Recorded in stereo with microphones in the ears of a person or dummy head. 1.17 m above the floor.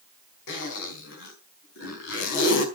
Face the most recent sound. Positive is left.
turn(degrees=75)  # may be behind; listen again after turning